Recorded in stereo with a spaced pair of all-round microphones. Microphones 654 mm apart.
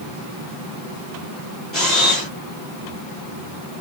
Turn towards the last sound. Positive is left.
turn(degrees=20)  # may be behind; listen again after turning